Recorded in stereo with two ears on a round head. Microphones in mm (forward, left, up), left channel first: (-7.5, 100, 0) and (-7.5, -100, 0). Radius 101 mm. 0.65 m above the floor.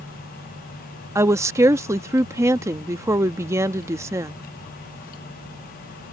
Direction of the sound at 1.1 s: 15° right (ahead or behind).